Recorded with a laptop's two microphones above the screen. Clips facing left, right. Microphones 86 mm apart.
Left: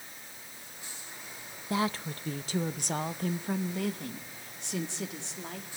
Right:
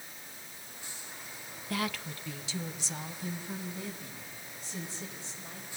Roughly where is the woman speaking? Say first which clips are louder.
Left 4 dB; left.